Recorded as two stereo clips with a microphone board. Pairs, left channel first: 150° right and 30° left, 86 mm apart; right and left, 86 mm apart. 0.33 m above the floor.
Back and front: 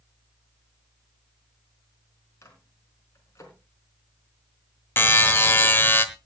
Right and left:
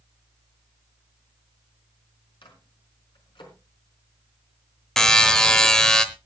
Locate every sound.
2.4 s a microwave: 95° right, 4 m
5.0 s a buzzer: 165° right, 1.1 m